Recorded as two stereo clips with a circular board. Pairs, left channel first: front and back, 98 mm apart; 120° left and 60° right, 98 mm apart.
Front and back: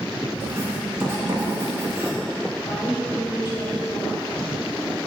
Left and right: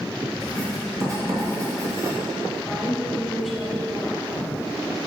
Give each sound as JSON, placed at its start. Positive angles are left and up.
{"t": 0.4, "sound": "writing", "azimuth_deg": -115, "distance_m": 3.5}
{"t": 2.6, "sound": "a woman speaking", "azimuth_deg": 30, "distance_m": 3.0}